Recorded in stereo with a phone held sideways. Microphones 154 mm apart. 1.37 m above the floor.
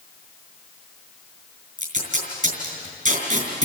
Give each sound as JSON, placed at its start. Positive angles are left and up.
{"t": 1.8, "sound": "tape being pulled", "side_deg": -60, "distance_m": 5.0}